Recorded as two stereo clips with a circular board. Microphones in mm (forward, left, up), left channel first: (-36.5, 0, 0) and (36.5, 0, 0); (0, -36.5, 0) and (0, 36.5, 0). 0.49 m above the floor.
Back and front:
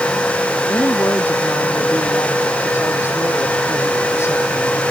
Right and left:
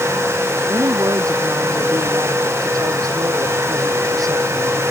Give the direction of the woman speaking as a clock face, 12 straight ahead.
8 o'clock.